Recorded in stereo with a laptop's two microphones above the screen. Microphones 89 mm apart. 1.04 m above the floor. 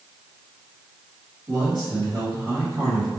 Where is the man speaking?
60° right (ahead or behind), 1.9 m.